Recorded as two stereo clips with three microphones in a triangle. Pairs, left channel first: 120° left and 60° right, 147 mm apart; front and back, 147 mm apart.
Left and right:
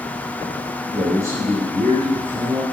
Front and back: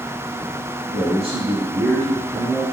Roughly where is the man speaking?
Behind right.